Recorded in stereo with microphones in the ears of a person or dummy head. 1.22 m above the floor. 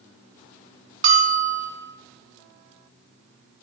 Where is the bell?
40° right (ahead or behind), 1.6 m.